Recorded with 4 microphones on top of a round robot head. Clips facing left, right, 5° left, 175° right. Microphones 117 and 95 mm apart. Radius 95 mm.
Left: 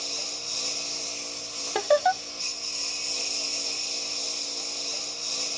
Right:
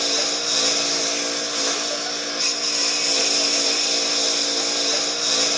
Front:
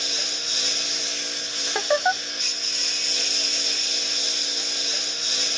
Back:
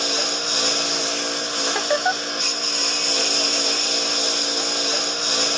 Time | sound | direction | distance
0.0 | a lawn mower | 120° right | ?
1.8 | laughter | 95° left | ?